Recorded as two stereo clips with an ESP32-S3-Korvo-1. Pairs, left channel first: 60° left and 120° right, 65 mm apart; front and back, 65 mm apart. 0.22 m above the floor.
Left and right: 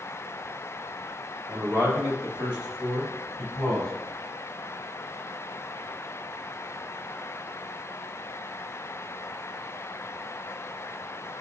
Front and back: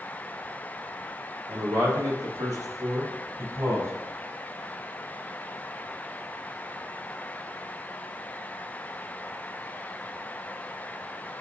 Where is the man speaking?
170° right, 3 m; by 3.9 s 140° left, 3.5 m.